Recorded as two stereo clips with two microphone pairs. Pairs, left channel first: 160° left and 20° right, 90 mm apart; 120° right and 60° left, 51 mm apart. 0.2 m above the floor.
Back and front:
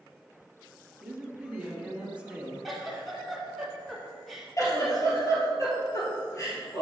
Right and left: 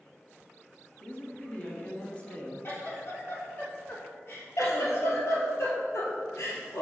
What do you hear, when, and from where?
1.0 s a woman speaking: 85° right, 1.2 m
2.6 s a giggle: 110° right, 1.4 m
4.6 s a giggle: 145° right, 1.6 m